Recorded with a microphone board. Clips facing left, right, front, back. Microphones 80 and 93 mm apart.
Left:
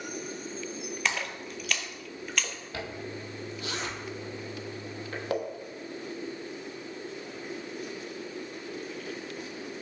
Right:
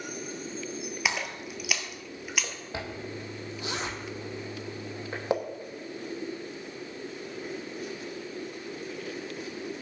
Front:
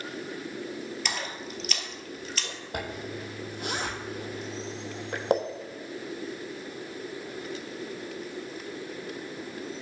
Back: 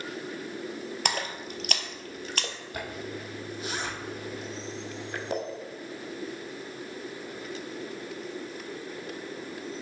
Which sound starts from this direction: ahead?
A zipper, at 2.7 s.